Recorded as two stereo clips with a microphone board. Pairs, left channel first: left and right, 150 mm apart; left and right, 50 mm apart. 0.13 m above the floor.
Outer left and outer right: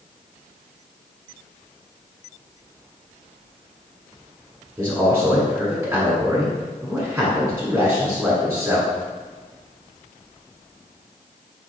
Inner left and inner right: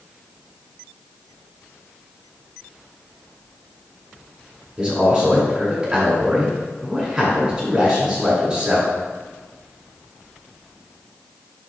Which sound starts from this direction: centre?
A man speaking, at 4.8 s.